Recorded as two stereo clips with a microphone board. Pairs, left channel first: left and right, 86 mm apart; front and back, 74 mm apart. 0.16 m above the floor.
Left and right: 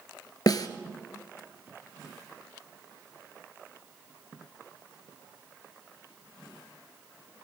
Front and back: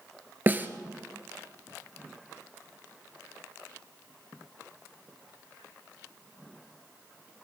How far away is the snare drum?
About 0.9 m.